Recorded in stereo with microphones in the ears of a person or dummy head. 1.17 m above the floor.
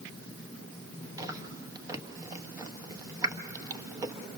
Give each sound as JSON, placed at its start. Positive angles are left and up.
{"t": 1.2, "sound": "chewing", "side_deg": -20, "distance_m": 1.2}